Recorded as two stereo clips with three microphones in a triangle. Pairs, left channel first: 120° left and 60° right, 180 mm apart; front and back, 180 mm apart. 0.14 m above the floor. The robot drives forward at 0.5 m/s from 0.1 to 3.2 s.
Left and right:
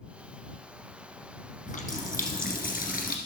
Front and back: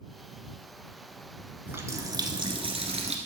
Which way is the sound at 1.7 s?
105° left.